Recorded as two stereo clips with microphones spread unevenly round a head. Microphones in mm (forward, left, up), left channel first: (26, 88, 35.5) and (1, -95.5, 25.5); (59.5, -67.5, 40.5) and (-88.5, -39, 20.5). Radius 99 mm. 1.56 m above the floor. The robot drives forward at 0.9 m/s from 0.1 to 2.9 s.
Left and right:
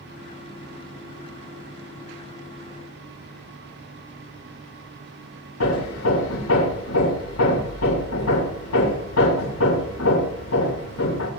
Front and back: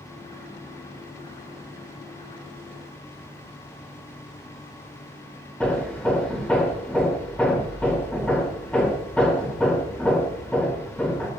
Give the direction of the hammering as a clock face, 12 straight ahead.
10 o'clock.